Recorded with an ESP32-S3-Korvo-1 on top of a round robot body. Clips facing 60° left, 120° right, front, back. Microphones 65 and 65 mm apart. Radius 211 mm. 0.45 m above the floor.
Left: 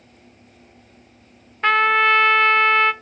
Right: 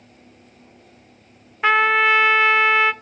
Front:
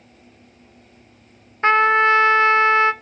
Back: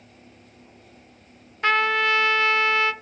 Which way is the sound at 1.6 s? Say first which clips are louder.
Even, front 6 dB; 40° right.